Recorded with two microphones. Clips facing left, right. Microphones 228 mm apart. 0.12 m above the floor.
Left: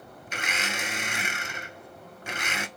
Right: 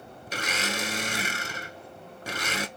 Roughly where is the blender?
Right.